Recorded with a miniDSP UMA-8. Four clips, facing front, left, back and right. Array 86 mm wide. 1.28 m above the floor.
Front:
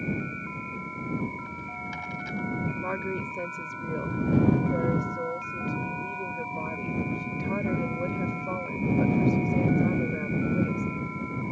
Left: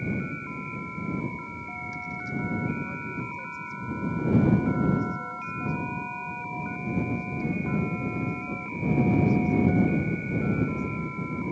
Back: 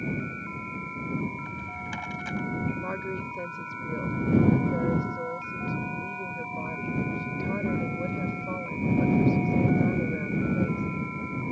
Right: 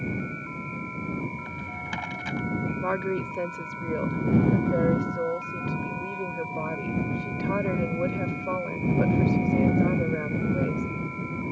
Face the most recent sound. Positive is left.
turn(degrees=-80)